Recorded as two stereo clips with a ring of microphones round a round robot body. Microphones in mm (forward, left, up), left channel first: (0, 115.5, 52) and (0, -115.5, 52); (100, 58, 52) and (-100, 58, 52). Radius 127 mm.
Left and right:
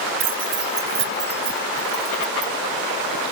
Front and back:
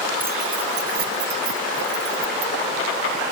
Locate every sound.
0.2 s keys jangling: 100° right; by 2.5 s 160° right